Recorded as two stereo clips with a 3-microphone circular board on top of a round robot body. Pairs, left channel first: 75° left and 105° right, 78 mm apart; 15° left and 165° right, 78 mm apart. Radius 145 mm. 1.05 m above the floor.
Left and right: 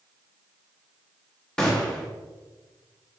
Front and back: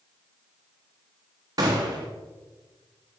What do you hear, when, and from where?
1.6 s a gunshot: 160° left, 0.6 m